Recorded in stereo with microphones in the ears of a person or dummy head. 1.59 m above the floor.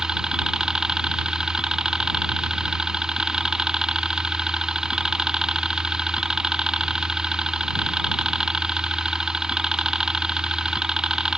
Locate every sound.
0.0 s a helicopter: 10° right (ahead or behind)